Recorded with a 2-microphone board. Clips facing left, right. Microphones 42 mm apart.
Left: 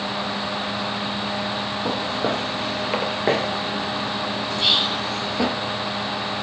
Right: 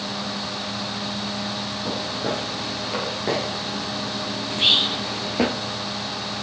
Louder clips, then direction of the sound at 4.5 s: Right 2 dB; 35° right (ahead or behind).